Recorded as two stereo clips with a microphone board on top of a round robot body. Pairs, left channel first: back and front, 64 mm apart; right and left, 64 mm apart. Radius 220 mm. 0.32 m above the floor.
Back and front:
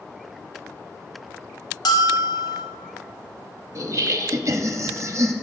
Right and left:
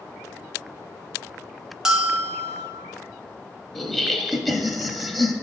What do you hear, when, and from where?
1.9 s a bell: 170° left, 0.7 m
3.8 s laughter: 10° right, 1.0 m